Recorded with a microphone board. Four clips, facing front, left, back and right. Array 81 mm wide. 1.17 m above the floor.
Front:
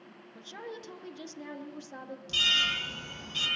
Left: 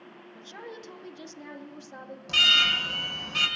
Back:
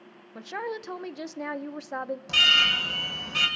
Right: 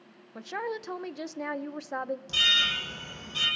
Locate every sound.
0.3 s a woman speaking: 135° right, 0.7 m
2.3 s an alarm: 140° left, 6 m